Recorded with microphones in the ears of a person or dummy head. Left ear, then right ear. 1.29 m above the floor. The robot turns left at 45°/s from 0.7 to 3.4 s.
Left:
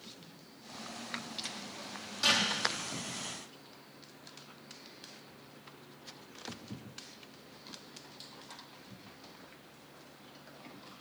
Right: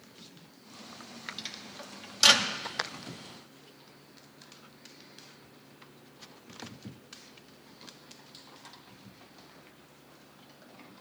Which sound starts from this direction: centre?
A microwave, at 1.4 s.